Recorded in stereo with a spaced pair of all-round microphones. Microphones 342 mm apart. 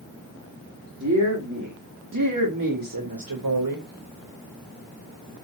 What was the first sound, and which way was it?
A woman speaking, 50° right (ahead or behind).